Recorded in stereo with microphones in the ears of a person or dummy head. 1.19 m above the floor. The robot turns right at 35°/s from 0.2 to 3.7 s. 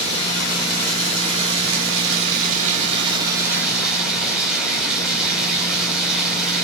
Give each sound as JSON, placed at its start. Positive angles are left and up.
{"t": 0.0, "sound": "running water", "azimuth_deg": -125, "distance_m": 7.0}